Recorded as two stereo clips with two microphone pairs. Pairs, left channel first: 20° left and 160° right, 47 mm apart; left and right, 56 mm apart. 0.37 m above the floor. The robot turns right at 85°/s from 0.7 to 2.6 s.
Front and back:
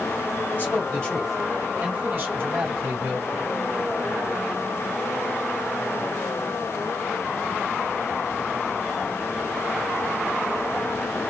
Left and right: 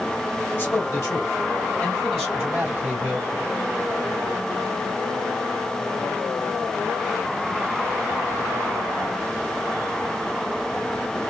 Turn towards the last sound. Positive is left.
turn(degrees=-150)